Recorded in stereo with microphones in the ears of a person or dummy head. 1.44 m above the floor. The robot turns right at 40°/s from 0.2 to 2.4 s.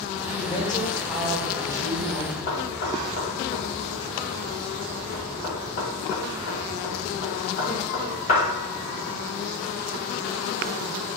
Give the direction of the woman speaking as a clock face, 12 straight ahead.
7 o'clock.